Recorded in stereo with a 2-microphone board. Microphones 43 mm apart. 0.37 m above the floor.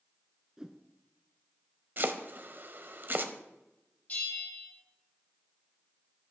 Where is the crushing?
I don't hear crushing.